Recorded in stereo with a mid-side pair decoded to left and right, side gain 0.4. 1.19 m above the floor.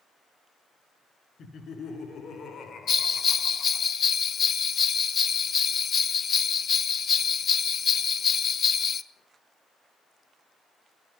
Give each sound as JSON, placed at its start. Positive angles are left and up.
{"t": 1.4, "sound": "laughter", "azimuth_deg": 60, "distance_m": 4.0}
{"t": 2.9, "sound": "a bell", "azimuth_deg": 60, "distance_m": 0.8}